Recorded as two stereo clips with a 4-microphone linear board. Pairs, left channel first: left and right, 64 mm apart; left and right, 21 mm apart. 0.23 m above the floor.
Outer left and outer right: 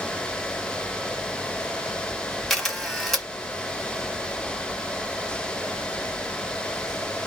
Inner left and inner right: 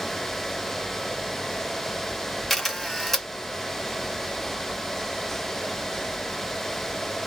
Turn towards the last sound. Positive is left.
turn(degrees=5)  # may be behind; listen again after turning